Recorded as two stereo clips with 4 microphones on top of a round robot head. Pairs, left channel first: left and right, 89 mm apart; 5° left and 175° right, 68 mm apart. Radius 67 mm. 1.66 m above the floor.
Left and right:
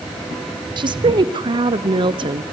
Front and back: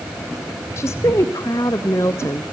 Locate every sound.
0.8 s a woman speaking: 55° right, 1.0 m